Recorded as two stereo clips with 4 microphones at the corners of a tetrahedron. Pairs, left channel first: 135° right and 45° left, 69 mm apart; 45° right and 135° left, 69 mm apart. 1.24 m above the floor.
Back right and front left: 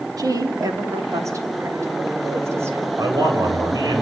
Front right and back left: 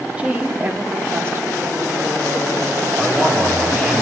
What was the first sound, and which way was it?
A woman speaking, 65° left.